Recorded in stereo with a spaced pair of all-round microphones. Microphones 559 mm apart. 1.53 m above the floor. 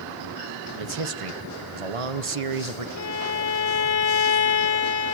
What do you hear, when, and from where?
0.8 s a man speaking: 70° right (ahead or behind), 1.1 m
3.0 s a violin: 85° left, 1.0 m